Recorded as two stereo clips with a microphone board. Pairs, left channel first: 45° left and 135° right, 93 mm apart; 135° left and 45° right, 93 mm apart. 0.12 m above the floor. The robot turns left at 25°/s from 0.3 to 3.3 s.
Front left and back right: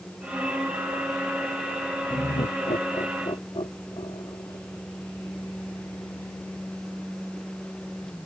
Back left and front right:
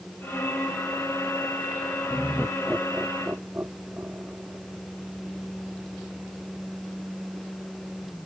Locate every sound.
2.1 s laughter: 50° left; by 4.6 s 20° left